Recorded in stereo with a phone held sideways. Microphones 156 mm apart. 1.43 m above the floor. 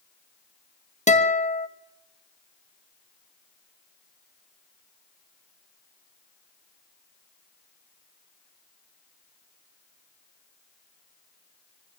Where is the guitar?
45° left (ahead or behind), 1.0 m.